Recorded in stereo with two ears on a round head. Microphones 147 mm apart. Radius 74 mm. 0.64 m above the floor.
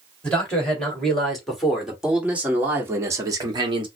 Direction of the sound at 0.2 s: 5° left (ahead or behind).